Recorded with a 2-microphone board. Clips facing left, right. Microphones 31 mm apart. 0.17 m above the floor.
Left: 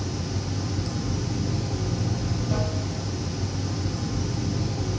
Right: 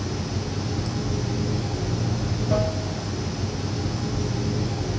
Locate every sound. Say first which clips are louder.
0.0 s running water: right 2 dB; 40° right (ahead or behind), 3 m